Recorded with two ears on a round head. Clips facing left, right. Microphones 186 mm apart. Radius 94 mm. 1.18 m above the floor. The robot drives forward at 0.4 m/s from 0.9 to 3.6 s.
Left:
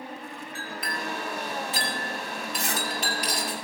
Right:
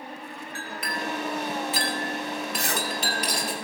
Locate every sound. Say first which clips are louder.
0.6 s a clink: right 2 dB; 55° right (ahead or behind), 3.5 m; by 3.5 s 75° right (ahead or behind), 3 m
2.5 s a zipper: right 2 dB; 55° right (ahead or behind), 1.5 m